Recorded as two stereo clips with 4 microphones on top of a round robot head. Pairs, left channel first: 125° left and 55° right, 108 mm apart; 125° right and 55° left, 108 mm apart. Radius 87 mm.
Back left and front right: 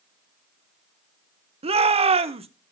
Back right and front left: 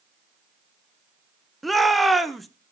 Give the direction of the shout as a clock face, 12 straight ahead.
1 o'clock.